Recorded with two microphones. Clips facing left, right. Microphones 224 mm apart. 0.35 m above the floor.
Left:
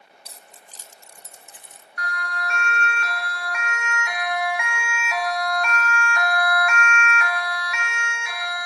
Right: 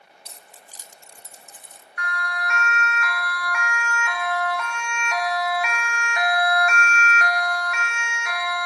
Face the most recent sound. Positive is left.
turn(degrees=-60)  # may be behind; listen again after turning